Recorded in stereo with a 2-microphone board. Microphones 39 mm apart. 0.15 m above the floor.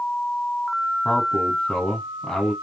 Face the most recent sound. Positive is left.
turn(degrees=15)  # may be behind; listen again after turning